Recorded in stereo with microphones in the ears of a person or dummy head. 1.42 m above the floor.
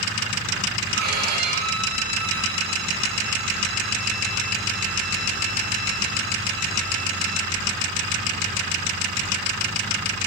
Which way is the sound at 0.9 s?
60° right (ahead or behind).